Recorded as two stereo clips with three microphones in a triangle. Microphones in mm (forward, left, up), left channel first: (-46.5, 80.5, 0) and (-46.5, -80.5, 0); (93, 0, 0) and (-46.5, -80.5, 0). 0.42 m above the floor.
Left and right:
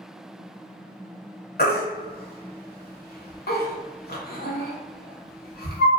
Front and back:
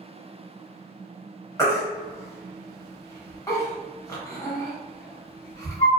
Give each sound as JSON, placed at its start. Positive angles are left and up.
{"t": 1.6, "sound": "a baby crying", "azimuth_deg": 100, "distance_m": 0.7}